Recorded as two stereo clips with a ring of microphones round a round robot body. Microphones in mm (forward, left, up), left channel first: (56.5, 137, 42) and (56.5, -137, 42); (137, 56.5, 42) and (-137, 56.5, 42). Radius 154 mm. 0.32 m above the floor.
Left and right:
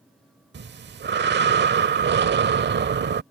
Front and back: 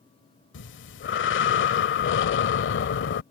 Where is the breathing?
45° right.